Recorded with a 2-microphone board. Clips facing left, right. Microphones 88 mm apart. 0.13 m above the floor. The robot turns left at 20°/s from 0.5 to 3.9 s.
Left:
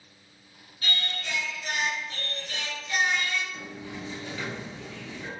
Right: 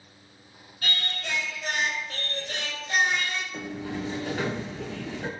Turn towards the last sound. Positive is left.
turn(degrees=-55)  # may be behind; listen again after turning